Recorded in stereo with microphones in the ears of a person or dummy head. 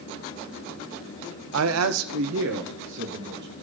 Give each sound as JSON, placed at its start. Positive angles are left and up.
{"t": 1.5, "sound": "a man speaking", "side_deg": -65, "distance_m": 0.5}